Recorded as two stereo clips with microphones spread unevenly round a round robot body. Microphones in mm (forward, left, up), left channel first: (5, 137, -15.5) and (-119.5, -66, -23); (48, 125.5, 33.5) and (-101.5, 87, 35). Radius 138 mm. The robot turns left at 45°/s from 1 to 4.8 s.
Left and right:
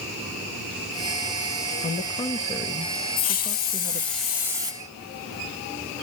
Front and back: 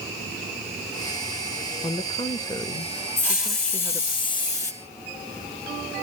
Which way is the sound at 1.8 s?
15° left.